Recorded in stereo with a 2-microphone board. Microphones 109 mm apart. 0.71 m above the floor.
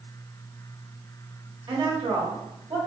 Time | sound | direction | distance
1.7 | a woman speaking | 45° right (ahead or behind) | 1.3 m